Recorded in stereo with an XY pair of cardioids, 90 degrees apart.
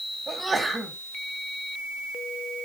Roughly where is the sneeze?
Ahead.